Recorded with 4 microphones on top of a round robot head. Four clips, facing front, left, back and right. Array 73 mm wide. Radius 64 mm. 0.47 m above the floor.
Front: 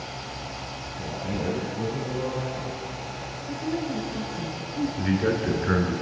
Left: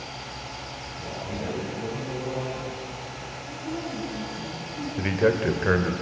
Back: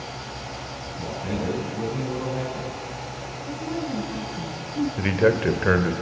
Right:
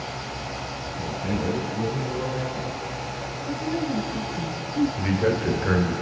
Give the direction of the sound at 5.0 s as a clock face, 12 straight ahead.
7 o'clock.